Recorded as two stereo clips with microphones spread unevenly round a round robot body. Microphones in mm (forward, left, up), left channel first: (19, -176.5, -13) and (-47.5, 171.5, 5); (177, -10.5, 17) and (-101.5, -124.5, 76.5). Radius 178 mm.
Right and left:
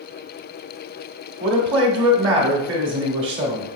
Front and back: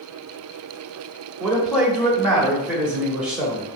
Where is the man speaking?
95° left, 1.0 m.